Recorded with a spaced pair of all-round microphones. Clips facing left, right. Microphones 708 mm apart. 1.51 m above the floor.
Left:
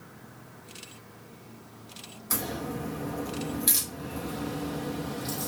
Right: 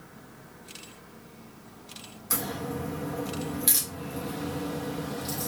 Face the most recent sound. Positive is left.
turn(degrees=-5)  # may be behind; listen again after turning